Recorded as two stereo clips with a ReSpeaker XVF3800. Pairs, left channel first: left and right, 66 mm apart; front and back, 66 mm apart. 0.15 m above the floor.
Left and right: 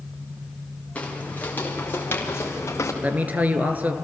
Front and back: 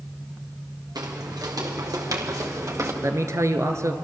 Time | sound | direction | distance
0.9 | footsteps | 160° left | 5.5 m
3.0 | a man speaking | 150° right | 2 m